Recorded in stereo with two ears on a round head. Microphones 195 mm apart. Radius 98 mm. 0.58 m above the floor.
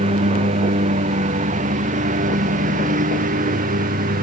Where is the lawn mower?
30° right (ahead or behind); by 4.2 s 40° right (ahead or behind).